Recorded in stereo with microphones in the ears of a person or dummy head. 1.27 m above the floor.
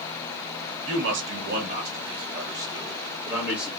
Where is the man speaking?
65° right (ahead or behind), 1.1 m; by 3.7 s 5° right (ahead or behind), 2 m.